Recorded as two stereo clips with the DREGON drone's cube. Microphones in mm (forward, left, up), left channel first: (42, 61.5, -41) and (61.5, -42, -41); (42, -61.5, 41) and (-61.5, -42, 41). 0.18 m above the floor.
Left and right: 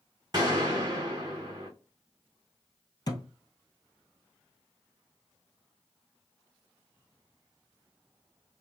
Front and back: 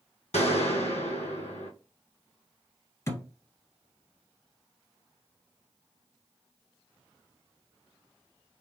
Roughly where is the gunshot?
Ahead right.